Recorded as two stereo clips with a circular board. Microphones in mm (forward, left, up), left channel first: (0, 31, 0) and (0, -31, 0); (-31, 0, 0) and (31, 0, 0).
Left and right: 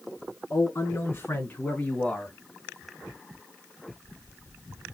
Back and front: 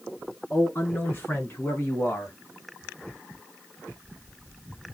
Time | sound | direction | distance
0.5 | a man speaking | 120° left | 3 m